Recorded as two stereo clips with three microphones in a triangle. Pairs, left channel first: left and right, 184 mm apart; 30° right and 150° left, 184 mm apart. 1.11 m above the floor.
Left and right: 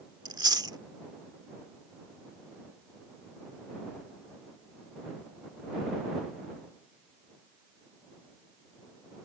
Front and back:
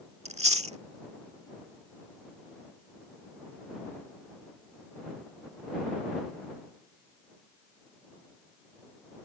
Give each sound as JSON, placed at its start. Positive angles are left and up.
{"t": 0.2, "sound": "chewing", "azimuth_deg": -155}